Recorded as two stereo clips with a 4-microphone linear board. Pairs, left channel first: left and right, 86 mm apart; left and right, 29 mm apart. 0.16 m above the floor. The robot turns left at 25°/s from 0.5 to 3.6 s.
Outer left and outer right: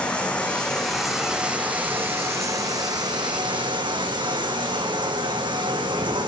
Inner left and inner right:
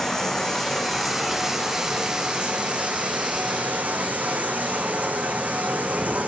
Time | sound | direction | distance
0.0 | running water | 10° left | 1.1 m